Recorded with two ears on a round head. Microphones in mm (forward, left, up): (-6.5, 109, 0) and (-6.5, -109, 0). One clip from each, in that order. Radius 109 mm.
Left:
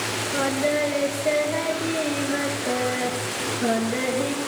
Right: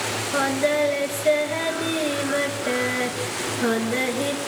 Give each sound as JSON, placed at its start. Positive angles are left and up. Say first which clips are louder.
{"t": 0.3, "sound": "singing", "louder": "right 2 dB", "side_deg": -35, "distance_m": 1.7}